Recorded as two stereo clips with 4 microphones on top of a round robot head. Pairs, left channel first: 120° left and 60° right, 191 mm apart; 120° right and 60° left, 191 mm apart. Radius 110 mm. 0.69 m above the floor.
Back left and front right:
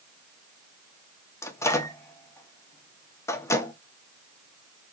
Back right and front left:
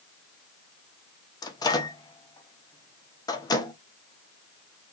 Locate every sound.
1.4 s a microwave: 175° right, 0.6 m